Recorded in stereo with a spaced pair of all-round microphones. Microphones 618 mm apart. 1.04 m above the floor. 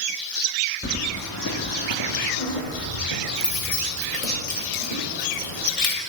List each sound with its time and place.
0.8 s keys jangling: 20° left (ahead or behind), 0.8 m; by 5.9 s 70° left (ahead or behind), 3.5 m